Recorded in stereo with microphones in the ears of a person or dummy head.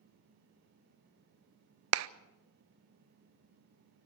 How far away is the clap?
About 0.5 m.